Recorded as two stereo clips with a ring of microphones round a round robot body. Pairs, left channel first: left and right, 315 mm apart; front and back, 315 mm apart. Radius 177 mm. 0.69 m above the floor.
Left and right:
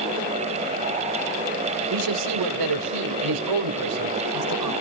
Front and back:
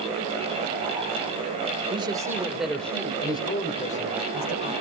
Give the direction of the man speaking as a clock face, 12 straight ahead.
3 o'clock.